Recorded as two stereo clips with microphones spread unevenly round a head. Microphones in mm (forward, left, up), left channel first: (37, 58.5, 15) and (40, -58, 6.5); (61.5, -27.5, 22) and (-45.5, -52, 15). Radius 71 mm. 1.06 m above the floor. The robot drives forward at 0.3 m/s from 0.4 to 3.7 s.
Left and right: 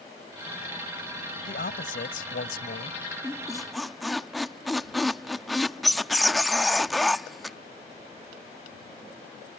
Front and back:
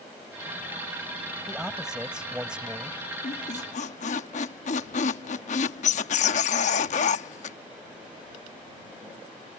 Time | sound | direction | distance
1.5 | a man speaking | 105° left | ?
3.2 | a squeak | 5° left | ?